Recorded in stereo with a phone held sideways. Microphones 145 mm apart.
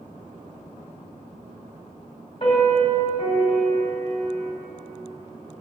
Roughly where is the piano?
Left.